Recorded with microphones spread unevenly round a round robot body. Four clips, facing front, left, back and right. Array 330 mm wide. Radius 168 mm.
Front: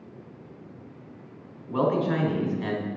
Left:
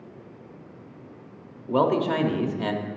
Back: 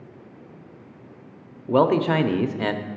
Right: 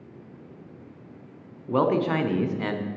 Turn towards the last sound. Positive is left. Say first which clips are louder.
# left 1 dB, back 6 dB
turn(degrees=170)